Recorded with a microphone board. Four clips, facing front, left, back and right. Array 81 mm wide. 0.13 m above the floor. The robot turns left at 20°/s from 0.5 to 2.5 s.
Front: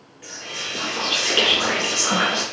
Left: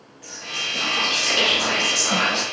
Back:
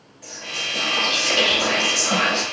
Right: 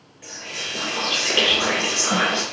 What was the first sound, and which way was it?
Whispering, 10° right.